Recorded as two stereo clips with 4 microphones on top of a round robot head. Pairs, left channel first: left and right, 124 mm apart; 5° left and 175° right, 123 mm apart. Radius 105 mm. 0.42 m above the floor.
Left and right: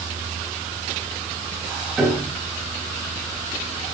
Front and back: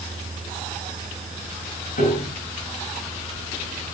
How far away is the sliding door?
I don't hear a sliding door.